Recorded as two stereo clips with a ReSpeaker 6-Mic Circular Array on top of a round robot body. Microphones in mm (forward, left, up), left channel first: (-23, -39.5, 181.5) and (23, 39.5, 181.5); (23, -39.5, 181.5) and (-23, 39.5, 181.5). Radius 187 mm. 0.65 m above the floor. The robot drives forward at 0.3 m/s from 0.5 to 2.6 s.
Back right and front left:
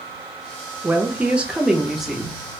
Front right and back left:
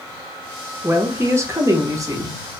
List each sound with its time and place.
0.8 s a woman speaking: 100° left, 0.8 m; by 2.4 s 150° left, 0.9 m